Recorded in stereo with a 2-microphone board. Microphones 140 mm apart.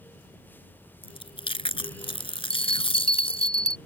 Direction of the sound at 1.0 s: 40° left (ahead or behind).